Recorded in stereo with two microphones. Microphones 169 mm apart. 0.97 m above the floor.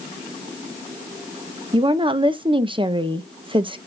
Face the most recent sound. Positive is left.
turn(degrees=-30)  # may be behind; listen again after turning